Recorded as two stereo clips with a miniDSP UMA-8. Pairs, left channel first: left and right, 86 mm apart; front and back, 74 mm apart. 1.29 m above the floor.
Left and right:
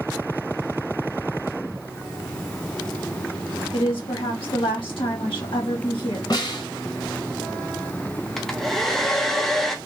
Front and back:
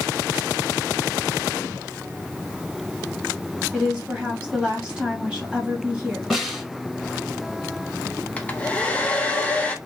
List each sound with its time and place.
3.7 s a woman speaking: 100° left, 1.3 m
6.3 s a snare drum: 95° left, 1.6 m
8.4 s a hair dryer: 10° left, 0.5 m